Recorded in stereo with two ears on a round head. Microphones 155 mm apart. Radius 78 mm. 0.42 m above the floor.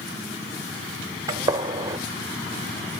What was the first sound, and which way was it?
A gunshot, 20° right (ahead or behind).